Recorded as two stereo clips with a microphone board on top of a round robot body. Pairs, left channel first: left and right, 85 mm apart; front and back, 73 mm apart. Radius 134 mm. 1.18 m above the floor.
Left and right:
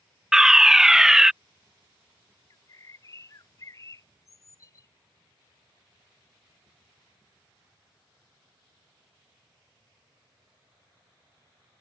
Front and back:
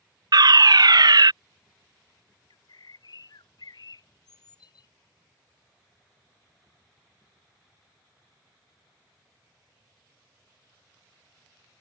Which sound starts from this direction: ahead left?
A bird, at 2.5 s.